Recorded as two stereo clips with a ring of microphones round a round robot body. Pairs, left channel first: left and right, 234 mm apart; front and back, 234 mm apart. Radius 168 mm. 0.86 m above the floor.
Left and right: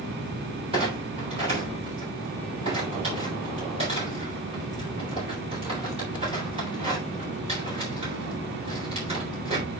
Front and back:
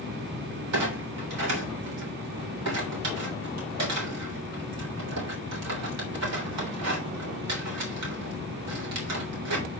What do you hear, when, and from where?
0.7 s a clunk: 165° right, 3.5 m